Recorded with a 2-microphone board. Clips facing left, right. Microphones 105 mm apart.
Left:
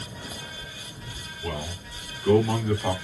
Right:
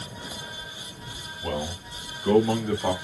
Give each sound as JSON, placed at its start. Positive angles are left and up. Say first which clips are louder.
{"t": 1.4, "sound": "a man speaking", "louder": "right 3 dB", "side_deg": -35, "distance_m": 2.0}